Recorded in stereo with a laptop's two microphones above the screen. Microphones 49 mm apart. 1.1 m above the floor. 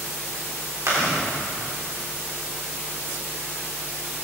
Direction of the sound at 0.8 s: 80° right.